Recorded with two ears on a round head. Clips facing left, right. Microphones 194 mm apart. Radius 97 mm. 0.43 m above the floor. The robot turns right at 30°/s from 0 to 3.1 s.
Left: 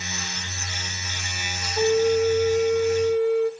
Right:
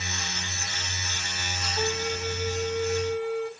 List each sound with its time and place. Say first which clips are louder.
1.8 s a flute: left 12 dB; 25° left, 0.6 m; by 3.5 s 65° left, 0.6 m